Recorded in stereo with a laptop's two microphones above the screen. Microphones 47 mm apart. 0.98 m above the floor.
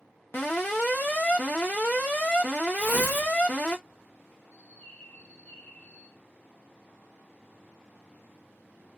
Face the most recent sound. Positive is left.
turn(degrees=35)  # may be behind; listen again after turning